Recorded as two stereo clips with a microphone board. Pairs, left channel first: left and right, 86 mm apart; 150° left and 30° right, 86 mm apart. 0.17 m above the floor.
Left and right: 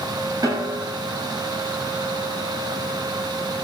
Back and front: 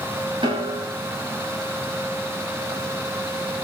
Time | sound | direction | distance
0.4 | a snare drum | 50° right | 7 m